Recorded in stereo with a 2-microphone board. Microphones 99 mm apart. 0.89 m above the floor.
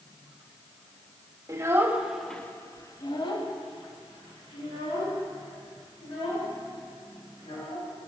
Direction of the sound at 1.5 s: 30° right (ahead or behind).